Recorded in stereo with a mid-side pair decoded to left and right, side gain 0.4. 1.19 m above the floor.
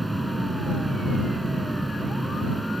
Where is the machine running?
15° right.